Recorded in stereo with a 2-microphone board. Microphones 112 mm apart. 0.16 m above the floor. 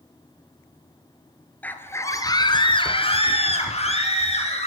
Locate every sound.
1.6 s a scream: 15° left (ahead or behind), 2.5 m; by 4.7 s 75° left (ahead or behind), 4.5 m